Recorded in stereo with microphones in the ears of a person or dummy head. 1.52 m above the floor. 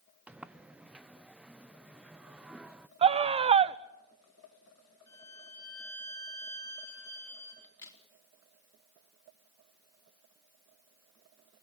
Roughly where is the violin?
Centre.